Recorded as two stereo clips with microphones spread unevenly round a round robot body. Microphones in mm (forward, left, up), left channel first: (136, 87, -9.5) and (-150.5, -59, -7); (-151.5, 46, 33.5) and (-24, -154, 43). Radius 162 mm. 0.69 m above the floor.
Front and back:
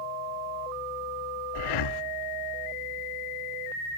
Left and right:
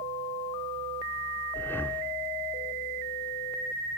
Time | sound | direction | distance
1.6 | breathing | 40° left | 0.7 m